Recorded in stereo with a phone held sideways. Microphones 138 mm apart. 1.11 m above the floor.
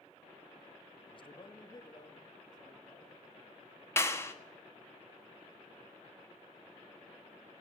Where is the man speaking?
40° left (ahead or behind), 0.7 m; by 3.2 s 30° left (ahead or behind), 2.5 m.